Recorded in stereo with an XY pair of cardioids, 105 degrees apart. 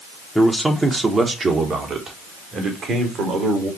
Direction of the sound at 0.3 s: 5° right.